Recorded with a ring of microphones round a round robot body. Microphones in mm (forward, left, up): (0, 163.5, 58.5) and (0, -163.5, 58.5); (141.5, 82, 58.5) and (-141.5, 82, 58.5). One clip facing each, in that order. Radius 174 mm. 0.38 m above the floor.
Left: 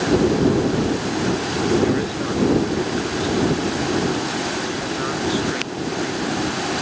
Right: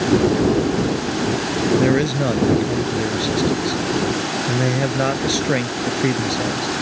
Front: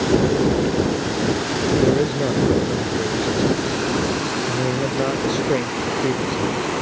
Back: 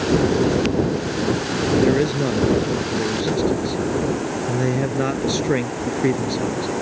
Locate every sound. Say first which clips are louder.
1.8 s a man speaking: right 3 dB, even; 110° right